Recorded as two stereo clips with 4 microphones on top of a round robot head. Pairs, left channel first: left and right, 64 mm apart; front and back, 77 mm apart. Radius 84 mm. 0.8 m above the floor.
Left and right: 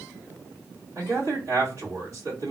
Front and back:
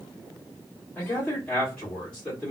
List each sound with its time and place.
0.9 s a man speaking: 80° right, 2 m